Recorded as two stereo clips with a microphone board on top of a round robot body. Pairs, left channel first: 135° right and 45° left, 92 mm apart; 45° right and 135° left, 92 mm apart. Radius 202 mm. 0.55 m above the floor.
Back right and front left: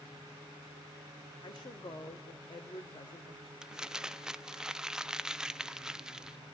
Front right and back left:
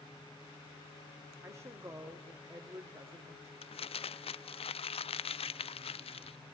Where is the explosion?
I don't hear an explosion.